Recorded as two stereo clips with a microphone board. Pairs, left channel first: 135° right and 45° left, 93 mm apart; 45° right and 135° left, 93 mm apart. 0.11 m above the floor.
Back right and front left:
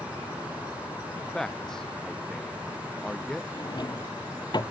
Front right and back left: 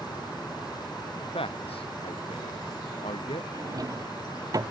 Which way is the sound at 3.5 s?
175° right.